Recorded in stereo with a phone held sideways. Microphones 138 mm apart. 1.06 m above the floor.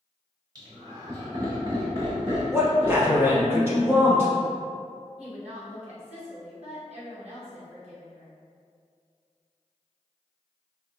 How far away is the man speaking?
About 1.0 m.